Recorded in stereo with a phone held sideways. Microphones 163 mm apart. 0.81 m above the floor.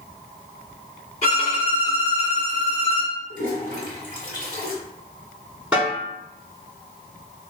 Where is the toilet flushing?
55° left (ahead or behind), 1.2 m.